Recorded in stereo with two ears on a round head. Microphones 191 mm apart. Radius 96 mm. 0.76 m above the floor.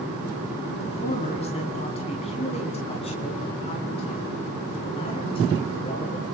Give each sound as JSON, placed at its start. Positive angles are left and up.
{"t": 0.8, "sound": "a man speaking", "side_deg": 30, "distance_m": 6.5}